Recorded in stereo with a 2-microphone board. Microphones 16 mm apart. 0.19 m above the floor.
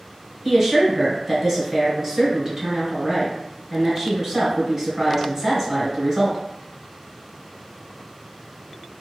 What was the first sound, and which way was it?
A woman speaking, 30° right (ahead or behind).